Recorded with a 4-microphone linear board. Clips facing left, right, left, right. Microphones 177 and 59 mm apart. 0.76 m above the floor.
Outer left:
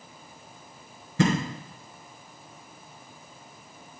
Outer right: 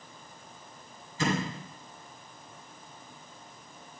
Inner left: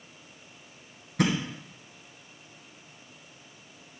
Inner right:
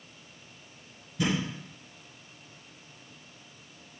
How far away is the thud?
About 2.5 m.